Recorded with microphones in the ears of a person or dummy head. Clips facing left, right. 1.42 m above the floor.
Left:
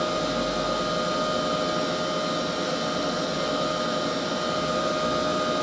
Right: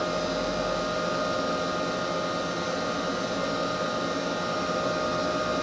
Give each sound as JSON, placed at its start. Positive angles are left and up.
{"t": 0.0, "sound": "a machine running", "side_deg": 45, "distance_m": 0.8}